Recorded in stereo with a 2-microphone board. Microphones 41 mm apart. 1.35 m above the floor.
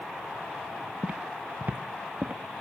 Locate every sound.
1.0 s footsteps: 40° right (ahead or behind), 2.0 m